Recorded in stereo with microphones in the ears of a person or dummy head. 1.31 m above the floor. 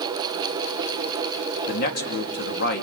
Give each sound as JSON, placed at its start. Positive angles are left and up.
{"t": 1.7, "sound": "a man speaking", "side_deg": 55, "distance_m": 2.5}